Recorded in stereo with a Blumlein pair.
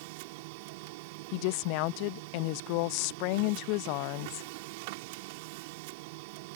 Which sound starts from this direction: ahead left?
A woman speaking, at 1.3 s.